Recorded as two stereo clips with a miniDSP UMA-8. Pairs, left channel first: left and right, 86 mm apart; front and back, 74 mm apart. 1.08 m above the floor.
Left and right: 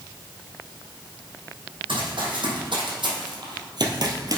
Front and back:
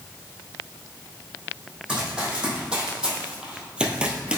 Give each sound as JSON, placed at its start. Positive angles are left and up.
{"t": 1.9, "sound": "running footsteps", "azimuth_deg": -100, "distance_m": 3.5}